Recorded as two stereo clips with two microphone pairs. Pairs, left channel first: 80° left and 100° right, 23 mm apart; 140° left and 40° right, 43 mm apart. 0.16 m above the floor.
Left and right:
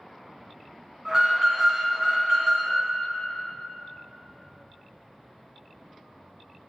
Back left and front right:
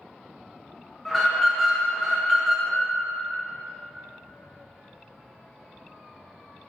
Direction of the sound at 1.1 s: 135° right.